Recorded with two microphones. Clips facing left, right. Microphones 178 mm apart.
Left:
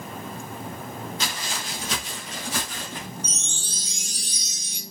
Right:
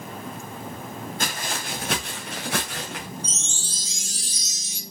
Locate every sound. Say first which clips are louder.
1.2 s footsteps: right 2 dB; 50° right (ahead or behind), 2.5 m; by 3.1 s 75° right (ahead or behind), 3.5 m
3.2 s a chime: even; 60° left (ahead or behind), 0.7 m